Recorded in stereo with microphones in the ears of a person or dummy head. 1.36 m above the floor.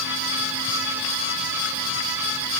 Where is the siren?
I don't hear a siren.